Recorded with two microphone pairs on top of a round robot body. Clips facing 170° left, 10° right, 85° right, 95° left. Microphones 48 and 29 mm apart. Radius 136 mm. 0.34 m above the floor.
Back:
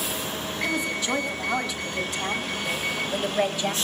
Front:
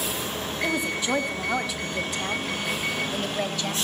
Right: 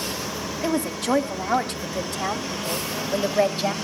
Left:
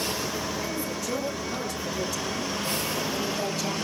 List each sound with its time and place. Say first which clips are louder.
0.6 s a woman speaking: front 1 dB, right 6 dB; 85° right, 3.5 m; by 3.8 s 125° right, 2.5 m